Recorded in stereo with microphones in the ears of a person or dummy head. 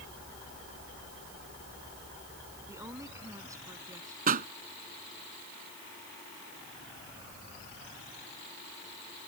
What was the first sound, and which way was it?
A woman speaking, 15° right (ahead or behind).